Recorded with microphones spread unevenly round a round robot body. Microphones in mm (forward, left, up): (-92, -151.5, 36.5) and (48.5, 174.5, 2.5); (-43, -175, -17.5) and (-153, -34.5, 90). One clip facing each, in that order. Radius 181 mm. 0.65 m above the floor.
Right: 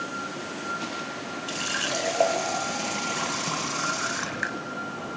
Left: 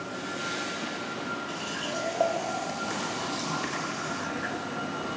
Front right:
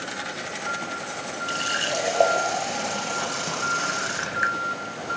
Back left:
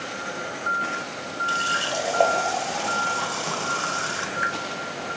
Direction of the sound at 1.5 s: 80° right.